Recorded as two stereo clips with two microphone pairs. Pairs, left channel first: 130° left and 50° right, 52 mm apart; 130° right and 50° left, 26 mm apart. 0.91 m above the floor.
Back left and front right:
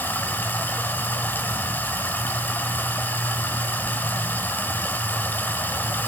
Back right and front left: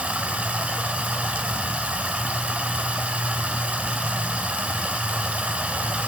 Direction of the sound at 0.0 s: 80° left.